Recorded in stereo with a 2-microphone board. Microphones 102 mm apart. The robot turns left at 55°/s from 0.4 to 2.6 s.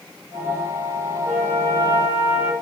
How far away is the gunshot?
I don't hear a gunshot.